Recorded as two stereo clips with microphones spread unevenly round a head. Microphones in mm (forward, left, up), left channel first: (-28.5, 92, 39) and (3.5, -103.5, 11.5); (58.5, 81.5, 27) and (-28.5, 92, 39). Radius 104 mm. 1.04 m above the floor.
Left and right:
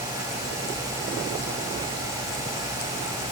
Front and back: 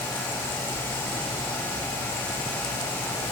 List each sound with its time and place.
Only background noise.